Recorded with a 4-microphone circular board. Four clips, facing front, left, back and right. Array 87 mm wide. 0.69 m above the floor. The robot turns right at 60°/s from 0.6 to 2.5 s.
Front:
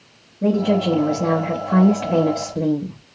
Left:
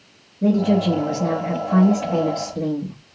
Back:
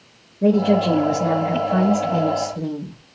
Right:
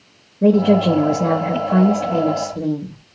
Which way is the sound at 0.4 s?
105° right.